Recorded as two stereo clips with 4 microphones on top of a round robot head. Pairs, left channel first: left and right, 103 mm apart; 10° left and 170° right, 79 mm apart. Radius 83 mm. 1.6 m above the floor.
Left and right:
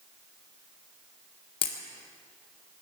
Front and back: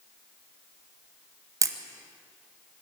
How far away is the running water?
No running water in this recording.